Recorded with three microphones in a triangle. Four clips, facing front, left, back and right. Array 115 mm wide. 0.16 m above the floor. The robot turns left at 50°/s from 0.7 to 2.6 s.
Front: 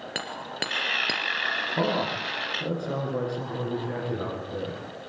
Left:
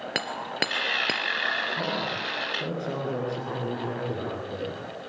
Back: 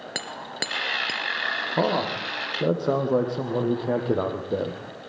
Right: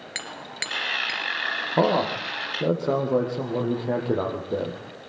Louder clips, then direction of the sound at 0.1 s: Left 6 dB, even; 95° left.